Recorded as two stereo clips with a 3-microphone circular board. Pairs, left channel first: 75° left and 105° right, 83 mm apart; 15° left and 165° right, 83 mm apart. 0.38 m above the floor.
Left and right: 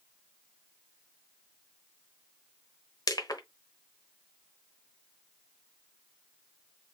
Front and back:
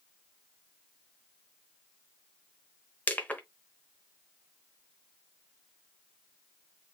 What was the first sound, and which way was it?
Crushing, 80° left.